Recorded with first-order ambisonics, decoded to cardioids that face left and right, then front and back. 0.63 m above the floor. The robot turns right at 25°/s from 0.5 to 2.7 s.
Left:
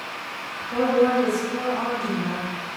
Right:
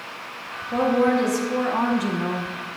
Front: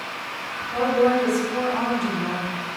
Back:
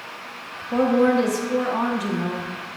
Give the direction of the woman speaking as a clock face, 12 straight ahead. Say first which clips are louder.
Even, back 1 dB; 5 o'clock.